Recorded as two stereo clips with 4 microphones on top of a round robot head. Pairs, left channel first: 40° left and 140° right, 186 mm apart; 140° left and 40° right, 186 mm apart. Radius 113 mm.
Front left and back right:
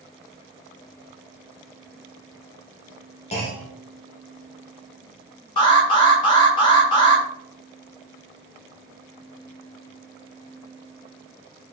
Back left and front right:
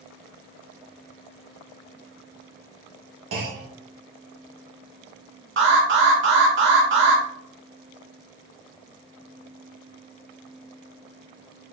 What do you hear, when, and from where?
3.3 s a clunk: 20° right, 1.2 m
5.6 s an alarm: 25° right, 1.0 m